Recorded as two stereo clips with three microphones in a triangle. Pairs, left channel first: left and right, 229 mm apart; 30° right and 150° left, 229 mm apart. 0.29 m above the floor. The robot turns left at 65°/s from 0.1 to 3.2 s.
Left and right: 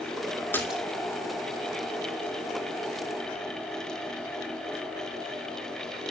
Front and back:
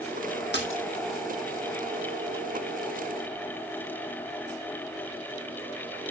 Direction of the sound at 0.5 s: 10° left.